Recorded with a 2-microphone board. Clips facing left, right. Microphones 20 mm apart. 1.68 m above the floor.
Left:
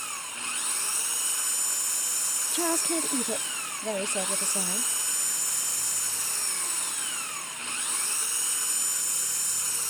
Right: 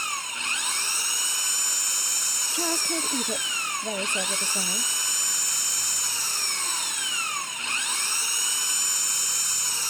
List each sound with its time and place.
0.0 s an engine running: 45° right (ahead or behind)
2.5 s a woman speaking: 25° left (ahead or behind)